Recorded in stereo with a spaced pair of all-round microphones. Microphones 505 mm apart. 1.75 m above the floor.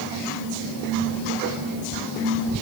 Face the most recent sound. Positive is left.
No sound to turn to.